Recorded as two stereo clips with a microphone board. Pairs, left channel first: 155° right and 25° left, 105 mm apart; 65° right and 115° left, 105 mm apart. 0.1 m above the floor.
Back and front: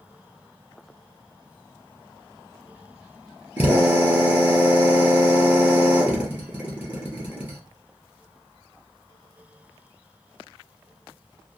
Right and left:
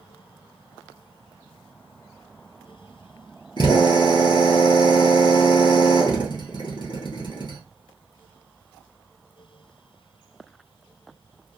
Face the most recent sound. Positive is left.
turn(degrees=-45)